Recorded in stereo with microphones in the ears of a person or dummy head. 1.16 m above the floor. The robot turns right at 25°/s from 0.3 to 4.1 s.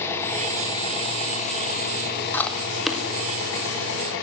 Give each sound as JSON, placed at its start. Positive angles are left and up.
{"t": 0.0, "sound": "an engine running", "azimuth_deg": 20, "distance_m": 4.5}
{"t": 2.3, "sound": "chewing", "side_deg": 10, "distance_m": 1.8}